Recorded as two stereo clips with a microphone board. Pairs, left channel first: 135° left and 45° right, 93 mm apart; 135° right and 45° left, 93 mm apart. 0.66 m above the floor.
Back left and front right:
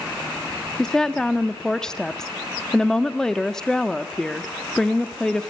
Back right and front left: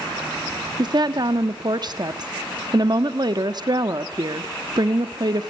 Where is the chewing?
No chewing in this recording.